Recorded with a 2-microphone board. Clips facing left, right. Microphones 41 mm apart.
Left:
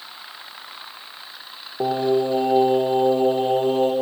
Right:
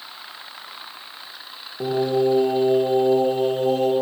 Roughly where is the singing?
Left.